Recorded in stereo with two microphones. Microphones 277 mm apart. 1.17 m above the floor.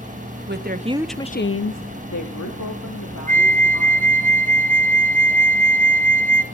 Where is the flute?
30° right (ahead or behind), 0.7 m.